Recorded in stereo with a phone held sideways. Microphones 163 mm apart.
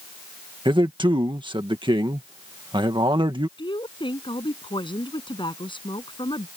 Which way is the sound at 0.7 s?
30° right (ahead or behind).